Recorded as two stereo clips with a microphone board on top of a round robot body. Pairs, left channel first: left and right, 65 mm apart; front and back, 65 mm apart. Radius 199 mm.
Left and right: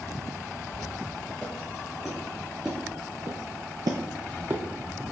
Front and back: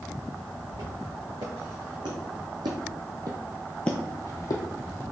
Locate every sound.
0.7 s footsteps: straight behind, 3 m; by 4.6 s 30° right, 1.1 m